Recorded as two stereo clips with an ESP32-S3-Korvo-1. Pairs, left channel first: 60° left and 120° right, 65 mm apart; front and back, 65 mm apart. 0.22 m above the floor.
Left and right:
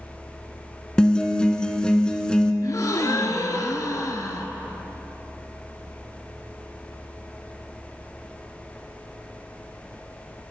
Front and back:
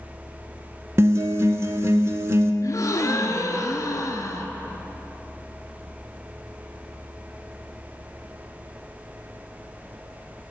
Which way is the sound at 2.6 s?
35° left.